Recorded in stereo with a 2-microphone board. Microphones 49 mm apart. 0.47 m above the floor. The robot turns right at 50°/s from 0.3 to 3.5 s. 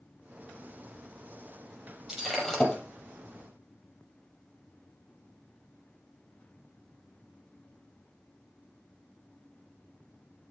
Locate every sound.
2.1 s breaking glass: 10° right, 5 m; by 2.8 s 25° left, 5 m